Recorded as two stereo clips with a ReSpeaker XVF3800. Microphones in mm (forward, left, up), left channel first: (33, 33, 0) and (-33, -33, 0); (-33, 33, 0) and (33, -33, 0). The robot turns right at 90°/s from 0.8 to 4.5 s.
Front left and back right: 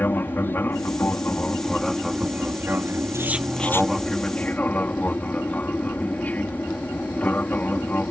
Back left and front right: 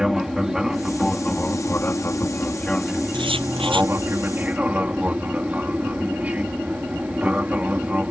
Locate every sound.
0.0 s an aircraft: 30° left; by 8.1 s 5° left
3.1 s writing: 75° right; by 3.9 s 5° right